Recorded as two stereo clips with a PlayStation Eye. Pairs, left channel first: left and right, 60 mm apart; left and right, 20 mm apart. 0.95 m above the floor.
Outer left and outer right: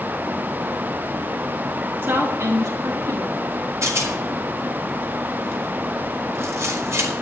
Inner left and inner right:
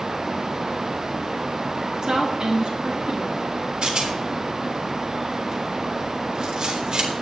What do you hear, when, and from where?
2.0 s a woman speaking: 35° right (ahead or behind), 1.0 m; by 3.9 s 75° right (ahead or behind), 3 m
3.8 s a rattle: 55° right (ahead or behind), 3.5 m